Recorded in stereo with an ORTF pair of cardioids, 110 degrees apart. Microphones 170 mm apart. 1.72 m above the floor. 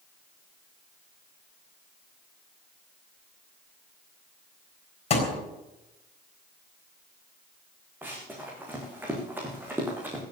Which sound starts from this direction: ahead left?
A thud, at 5.1 s.